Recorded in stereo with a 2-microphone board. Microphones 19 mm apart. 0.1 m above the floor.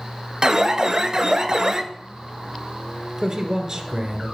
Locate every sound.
0.4 s an alarm: 30° right (ahead or behind), 0.8 m
3.2 s a man speaking: 20° right (ahead or behind), 1.3 m